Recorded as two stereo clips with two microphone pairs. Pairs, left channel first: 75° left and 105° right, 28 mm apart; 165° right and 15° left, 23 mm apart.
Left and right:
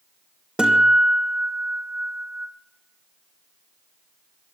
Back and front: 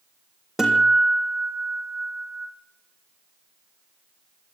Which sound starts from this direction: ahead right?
A guitar, at 0.6 s.